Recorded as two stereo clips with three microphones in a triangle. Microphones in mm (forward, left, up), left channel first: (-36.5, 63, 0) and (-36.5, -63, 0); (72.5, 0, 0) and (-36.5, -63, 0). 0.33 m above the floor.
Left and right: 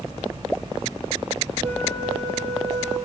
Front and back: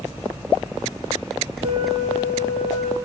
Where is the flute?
120° right, 3.5 m.